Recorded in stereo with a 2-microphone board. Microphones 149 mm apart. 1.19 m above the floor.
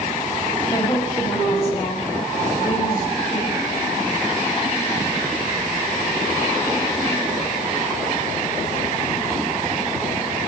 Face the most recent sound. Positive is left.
turn(degrees=65)  # may be behind; listen again after turning